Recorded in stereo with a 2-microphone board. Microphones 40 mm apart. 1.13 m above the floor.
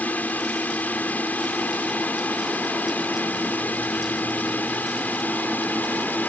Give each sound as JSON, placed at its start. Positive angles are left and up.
{"t": 0.0, "sound": "a drone", "side_deg": 45}